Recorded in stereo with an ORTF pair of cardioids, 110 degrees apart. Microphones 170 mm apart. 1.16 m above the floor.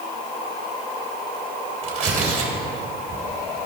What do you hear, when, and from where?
1.8 s tearing paper: 45° right, 3 m